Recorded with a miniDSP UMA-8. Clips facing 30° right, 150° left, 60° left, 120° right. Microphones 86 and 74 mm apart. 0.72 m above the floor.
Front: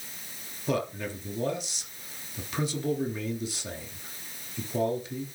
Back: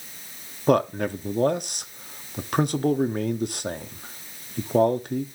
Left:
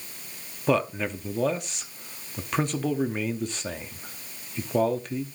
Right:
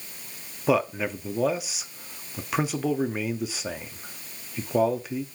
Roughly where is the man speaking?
Behind left.